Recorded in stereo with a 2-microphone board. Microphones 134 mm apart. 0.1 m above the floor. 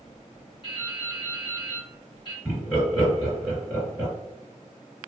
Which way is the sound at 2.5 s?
Centre (ahead or behind).